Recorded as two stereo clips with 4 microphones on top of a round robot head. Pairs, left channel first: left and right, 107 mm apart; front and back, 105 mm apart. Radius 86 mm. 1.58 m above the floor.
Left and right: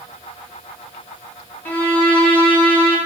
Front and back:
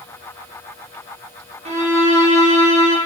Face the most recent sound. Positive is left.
turn(degrees=165)